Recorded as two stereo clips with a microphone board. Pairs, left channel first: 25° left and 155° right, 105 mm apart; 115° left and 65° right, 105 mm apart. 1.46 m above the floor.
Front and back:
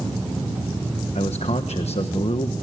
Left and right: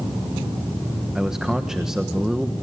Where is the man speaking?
15° left, 1.2 m.